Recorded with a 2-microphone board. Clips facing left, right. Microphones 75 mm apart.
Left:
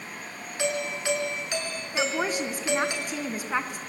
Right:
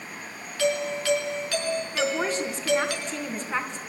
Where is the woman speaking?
10° left (ahead or behind), 3 m.